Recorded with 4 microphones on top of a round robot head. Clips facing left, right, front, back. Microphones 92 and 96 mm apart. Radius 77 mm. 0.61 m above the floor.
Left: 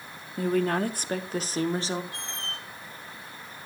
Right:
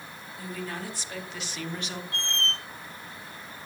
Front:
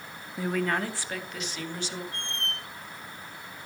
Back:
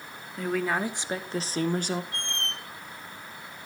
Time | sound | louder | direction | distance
0.4 | a woman speaking | left 12 dB, back 1 dB | 80° left | 0.9 m
2.1 | a squeak | right 5 dB, back 1 dB | 165° left | 0.8 m